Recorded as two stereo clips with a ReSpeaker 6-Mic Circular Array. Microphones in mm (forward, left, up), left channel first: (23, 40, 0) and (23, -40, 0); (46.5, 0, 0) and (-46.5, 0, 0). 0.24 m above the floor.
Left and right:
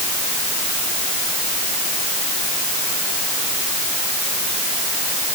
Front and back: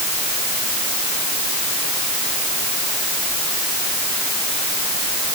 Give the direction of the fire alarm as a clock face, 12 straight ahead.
I don't hear a fire alarm.